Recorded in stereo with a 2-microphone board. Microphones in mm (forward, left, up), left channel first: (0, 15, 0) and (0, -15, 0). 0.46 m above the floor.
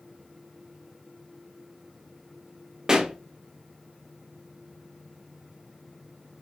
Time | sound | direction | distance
2.9 | a pop | 20° right (ahead or behind) | 0.7 m